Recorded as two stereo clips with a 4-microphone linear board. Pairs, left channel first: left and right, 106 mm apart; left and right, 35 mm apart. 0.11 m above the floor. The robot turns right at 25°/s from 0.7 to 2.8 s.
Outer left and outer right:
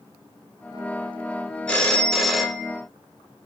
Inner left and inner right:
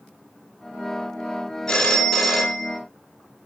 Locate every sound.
1.7 s a phone ringing: 10° left (ahead or behind), 1.7 m; by 2.8 s 10° right (ahead or behind), 1.7 m